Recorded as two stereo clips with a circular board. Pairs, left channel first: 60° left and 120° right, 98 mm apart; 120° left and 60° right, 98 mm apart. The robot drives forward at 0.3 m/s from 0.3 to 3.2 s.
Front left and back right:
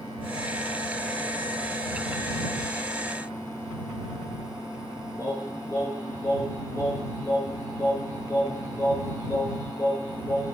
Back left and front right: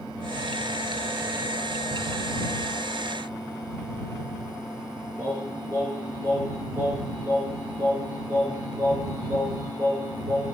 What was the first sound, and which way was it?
Singing, straight ahead.